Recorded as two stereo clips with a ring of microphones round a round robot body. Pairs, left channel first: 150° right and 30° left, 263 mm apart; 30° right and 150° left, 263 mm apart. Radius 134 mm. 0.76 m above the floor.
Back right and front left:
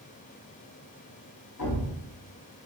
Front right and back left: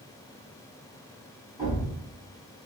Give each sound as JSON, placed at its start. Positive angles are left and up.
{"t": 1.6, "sound": "a thud", "azimuth_deg": -135, "distance_m": 1.5}